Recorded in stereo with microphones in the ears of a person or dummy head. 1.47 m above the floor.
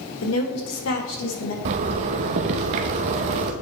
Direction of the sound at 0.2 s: 80° left.